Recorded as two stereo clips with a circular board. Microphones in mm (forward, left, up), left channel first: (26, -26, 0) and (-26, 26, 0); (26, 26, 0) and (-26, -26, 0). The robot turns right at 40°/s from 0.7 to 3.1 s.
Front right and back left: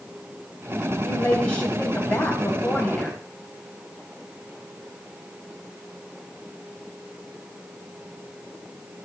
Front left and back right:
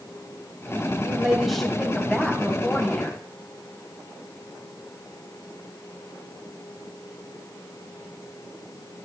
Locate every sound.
1.1 s a woman speaking: 65° right, 1.1 m; by 3.2 s 15° left, 1.1 m